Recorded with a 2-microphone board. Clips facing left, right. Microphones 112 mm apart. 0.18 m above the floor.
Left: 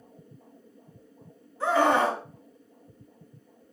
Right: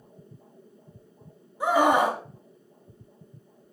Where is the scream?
10° right (ahead or behind), 1.1 m.